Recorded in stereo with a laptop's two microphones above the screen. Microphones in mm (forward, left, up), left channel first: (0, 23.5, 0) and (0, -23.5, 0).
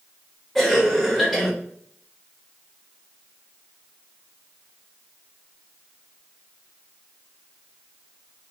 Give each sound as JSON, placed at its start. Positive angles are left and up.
{"t": 0.6, "sound": "a cough", "side_deg": 0, "distance_m": 1.2}